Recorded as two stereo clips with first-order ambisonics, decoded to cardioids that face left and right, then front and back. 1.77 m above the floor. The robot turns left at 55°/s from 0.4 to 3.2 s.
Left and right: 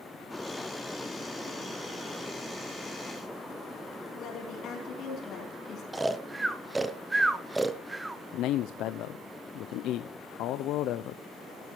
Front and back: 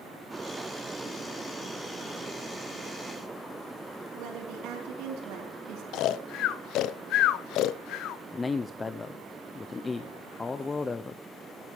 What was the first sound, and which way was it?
A woman speaking, 145° left.